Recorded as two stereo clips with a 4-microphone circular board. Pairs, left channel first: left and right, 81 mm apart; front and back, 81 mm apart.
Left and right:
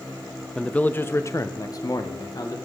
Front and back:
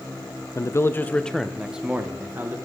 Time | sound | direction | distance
0.6 | a man speaking | 15° left | 0.8 m